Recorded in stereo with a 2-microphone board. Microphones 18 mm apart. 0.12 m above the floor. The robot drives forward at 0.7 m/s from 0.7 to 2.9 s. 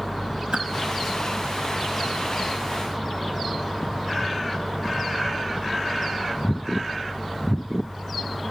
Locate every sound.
0.5 s a whoosh: 70° right (ahead or behind), 1.2 m